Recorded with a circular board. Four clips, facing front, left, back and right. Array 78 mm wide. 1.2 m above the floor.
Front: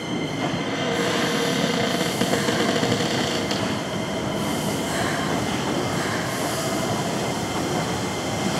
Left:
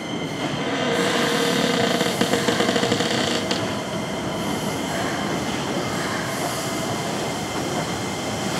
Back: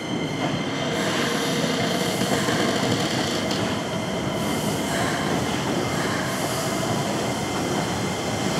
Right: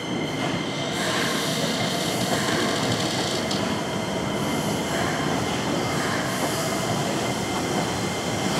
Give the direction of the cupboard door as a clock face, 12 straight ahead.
9 o'clock.